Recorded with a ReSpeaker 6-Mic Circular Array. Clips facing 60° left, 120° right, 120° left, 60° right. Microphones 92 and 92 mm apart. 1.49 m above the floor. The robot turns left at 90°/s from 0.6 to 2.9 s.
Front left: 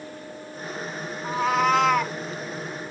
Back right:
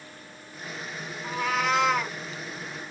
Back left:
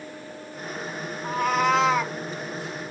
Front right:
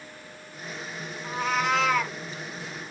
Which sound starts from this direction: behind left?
A cat meowing, at 1.2 s.